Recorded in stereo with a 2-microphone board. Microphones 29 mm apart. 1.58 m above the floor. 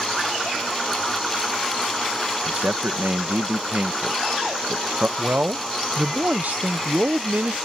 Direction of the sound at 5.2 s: 70° right (ahead or behind).